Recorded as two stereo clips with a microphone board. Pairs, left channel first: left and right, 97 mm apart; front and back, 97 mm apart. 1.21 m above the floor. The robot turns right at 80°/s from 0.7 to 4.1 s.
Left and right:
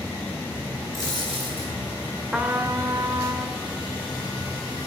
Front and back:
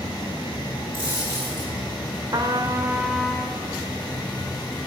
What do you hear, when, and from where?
0.9 s a dropped coin: 145° right, 8.5 m; by 1.7 s 85° right, 8.5 m
2.3 s a trumpet: 165° right, 1.1 m; by 3.6 s 65° right, 1.1 m